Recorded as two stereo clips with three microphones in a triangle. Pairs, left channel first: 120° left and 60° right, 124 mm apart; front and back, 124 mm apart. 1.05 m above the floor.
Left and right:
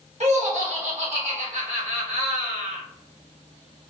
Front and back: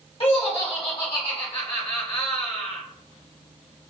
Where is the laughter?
40° right, 1.6 m.